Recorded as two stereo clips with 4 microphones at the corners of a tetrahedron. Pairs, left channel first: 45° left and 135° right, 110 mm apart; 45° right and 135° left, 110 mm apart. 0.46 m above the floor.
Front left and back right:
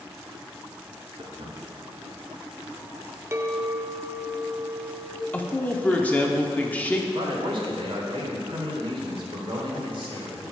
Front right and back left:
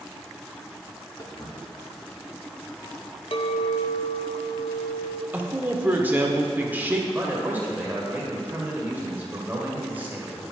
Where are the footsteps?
95° right, 2.5 m; by 3.2 s 125° right, 1.7 m.